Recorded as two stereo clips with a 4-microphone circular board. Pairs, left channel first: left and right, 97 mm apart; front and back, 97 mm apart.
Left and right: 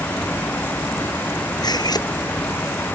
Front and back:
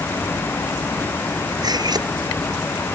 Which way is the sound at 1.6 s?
135° left.